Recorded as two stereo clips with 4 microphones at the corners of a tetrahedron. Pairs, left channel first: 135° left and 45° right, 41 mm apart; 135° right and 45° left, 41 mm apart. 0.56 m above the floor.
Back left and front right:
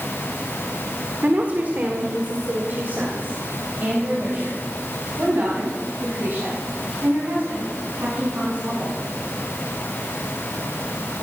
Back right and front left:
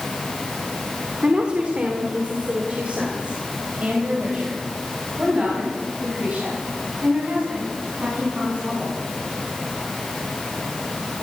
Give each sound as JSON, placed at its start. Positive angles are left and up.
{"t": 1.2, "sound": "a woman speaking", "azimuth_deg": -10, "distance_m": 1.8}